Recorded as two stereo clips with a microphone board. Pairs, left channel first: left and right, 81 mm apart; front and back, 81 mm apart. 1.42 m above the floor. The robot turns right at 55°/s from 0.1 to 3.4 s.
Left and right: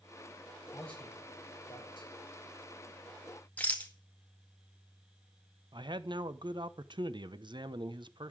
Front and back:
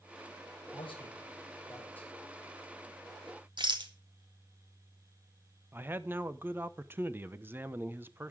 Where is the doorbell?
No doorbell in this recording.